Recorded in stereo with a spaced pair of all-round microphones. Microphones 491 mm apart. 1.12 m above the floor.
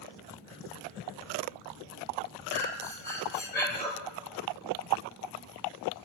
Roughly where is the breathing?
Centre.